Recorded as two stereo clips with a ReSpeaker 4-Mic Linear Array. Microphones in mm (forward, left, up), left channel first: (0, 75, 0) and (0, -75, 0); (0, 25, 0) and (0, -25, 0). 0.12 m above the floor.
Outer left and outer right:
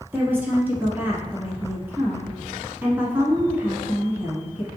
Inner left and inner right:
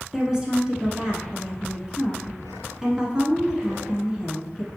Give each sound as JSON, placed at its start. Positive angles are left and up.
{"t": 0.1, "sound": "a woman speaking", "side_deg": -15, "distance_m": 1.1}